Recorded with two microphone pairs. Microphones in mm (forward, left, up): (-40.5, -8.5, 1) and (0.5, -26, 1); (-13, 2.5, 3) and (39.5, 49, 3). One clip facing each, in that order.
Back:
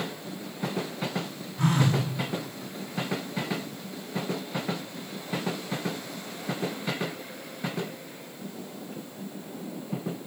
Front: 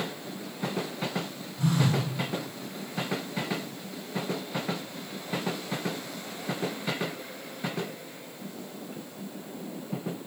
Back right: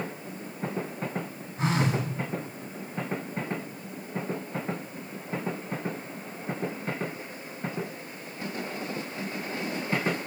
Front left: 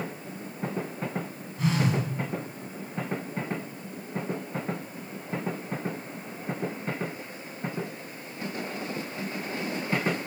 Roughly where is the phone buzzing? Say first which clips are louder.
Back 2 dB, even; behind.